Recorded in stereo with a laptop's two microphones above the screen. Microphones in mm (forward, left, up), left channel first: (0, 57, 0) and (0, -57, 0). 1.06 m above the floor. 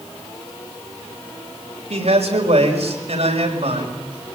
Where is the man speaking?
80° right, 5 m.